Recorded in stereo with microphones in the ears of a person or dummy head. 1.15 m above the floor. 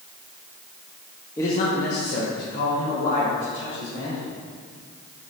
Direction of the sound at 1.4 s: 15° left (ahead or behind).